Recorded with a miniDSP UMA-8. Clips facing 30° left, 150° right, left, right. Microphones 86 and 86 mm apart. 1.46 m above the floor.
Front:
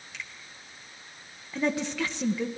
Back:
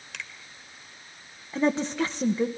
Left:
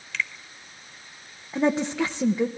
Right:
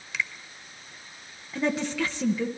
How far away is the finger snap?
About 1.9 m.